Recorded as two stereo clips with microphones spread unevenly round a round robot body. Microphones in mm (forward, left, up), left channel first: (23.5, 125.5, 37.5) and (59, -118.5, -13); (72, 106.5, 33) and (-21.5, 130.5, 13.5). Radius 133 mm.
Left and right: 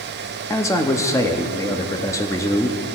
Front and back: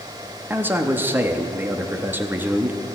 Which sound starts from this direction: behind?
A man speaking, at 0.5 s.